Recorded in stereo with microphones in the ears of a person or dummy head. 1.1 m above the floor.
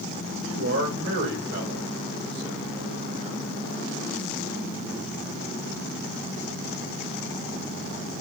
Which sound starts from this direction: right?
A man speaking, at 0.4 s.